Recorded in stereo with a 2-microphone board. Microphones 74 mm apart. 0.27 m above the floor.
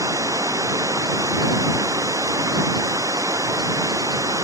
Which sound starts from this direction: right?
Running water, at 0.0 s.